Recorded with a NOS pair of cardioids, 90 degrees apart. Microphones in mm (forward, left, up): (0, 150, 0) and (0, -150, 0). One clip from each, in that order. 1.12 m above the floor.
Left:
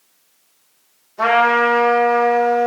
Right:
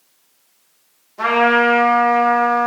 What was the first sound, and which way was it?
A trumpet, straight ahead.